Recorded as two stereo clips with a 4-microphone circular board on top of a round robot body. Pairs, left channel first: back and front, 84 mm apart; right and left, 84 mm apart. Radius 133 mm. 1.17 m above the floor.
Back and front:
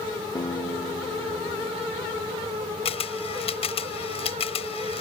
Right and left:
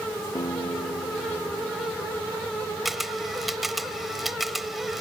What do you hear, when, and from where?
0.3 s a guitar: 135° right
2.9 s a camera shutter: 175° left